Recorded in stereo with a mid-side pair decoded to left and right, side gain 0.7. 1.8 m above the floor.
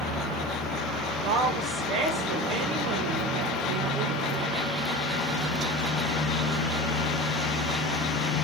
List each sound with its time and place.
1.2 s a woman speaking: 70° right, 3 m